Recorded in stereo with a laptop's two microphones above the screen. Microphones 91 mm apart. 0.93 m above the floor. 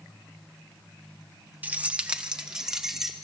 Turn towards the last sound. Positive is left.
turn(degrees=-5)  # may be behind; listen again after turning